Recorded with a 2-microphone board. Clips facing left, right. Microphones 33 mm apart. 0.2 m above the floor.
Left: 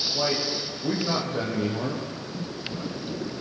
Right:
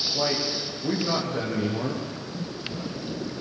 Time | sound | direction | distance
0.1 | a man speaking | 5° left (ahead or behind) | 8 m